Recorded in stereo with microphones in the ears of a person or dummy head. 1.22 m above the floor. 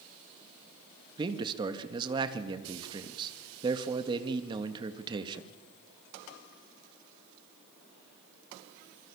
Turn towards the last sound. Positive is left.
turn(degrees=-25)  # may be behind; listen again after turning